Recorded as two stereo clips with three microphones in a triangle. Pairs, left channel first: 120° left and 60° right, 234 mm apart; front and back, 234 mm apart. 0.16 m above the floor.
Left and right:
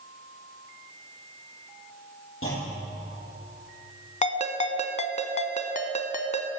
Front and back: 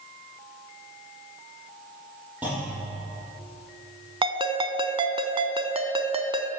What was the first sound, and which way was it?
A clunk, 95° left.